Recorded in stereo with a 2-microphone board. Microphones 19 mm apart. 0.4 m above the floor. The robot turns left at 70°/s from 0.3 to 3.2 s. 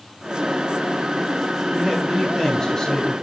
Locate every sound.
1.7 s a man speaking: 145° right, 2.5 m; by 3.1 s 115° left, 2.5 m